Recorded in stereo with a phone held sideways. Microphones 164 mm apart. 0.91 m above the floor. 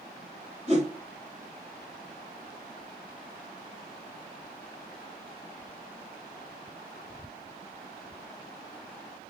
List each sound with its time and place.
0.7 s a whoosh: 45° right (ahead or behind), 4 m